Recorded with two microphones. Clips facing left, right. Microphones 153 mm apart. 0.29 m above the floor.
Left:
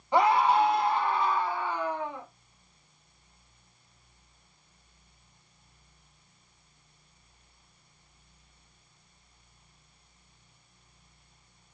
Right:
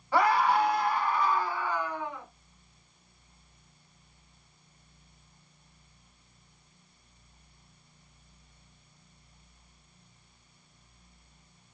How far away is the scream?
About 1.2 m.